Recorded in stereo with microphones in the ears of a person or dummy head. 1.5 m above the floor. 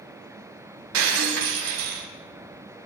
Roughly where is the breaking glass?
Right.